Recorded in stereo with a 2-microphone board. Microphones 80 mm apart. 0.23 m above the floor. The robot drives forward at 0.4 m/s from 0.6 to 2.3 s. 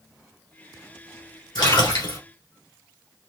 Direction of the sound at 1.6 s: 70° left (ahead or behind).